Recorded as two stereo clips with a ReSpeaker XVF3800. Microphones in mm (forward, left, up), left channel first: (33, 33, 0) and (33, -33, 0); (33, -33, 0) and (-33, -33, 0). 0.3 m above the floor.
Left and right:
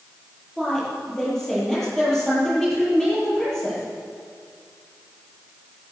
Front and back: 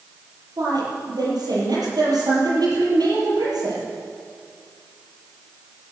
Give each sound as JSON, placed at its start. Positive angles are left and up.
{"t": 0.6, "sound": "a woman speaking", "azimuth_deg": 170, "distance_m": 8.0}